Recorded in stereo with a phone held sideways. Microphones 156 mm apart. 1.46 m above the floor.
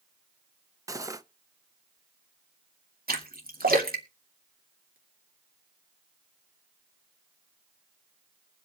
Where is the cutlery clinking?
20° right (ahead or behind), 0.6 m.